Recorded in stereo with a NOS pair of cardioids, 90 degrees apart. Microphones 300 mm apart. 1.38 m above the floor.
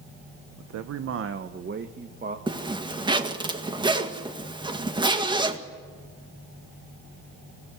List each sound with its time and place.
0.6 s a man speaking: 65° right, 1.0 m; by 2.4 s 25° right, 1.9 m
2.5 s a zipper: 15° right, 1.8 m